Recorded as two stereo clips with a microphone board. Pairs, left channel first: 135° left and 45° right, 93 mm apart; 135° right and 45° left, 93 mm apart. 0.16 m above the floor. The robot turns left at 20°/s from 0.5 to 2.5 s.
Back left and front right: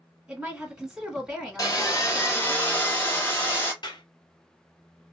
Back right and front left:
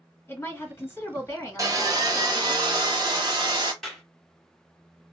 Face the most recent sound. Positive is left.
turn(degrees=140)